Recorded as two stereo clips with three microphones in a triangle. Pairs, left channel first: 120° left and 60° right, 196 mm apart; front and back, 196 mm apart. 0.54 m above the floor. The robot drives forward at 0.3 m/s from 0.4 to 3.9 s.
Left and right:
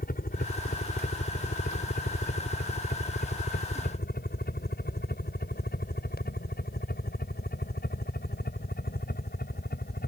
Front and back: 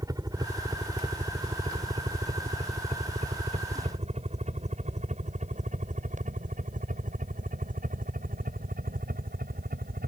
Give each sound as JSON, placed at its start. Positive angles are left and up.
{"t": 0.0, "sound": "a helicopter", "azimuth_deg": 115}